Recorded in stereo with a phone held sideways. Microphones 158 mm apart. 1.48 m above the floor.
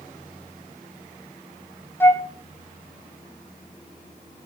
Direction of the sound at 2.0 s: 15° left (ahead or behind).